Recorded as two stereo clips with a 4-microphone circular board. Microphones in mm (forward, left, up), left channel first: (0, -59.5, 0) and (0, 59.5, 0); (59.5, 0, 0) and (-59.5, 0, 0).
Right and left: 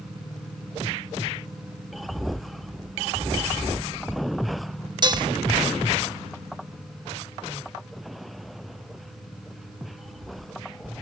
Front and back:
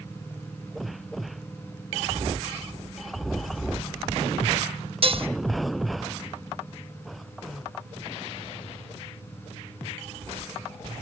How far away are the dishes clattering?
About 1.0 m.